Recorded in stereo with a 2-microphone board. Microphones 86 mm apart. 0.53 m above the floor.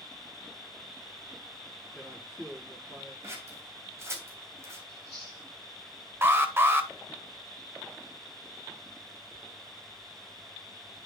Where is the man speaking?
5° right (ahead or behind), 7 m.